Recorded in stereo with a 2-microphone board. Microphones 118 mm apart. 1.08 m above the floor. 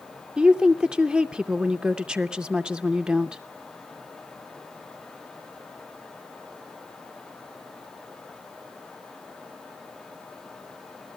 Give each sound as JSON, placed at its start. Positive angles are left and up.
{"t": 0.4, "sound": "a woman speaking", "side_deg": -10, "distance_m": 0.6}